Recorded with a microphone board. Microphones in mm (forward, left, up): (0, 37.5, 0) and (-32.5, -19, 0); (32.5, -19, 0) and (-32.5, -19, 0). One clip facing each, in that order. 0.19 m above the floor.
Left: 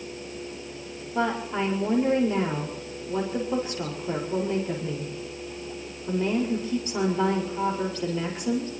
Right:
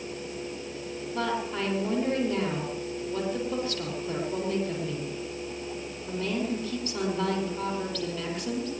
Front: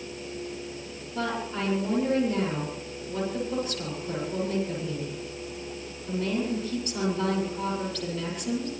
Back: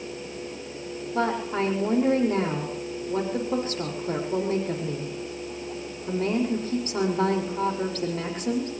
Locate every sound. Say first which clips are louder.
1.1 s a woman speaking: left 4 dB, back 5 dB; 130° left, 6.5 m